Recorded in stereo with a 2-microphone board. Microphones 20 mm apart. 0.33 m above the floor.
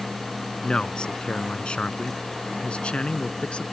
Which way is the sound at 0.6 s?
55° left (ahead or behind).